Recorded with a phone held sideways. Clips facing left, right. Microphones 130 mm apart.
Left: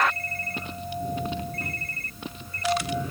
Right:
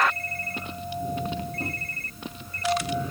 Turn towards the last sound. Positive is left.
turn(degrees=-30)  # may be behind; listen again after turning